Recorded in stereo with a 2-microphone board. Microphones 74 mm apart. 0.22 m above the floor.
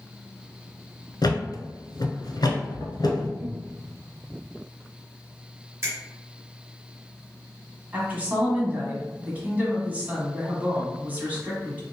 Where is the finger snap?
35° right (ahead or behind), 1.5 m.